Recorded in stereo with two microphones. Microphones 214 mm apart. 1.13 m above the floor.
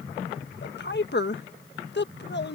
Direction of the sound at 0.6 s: 55° left (ahead or behind).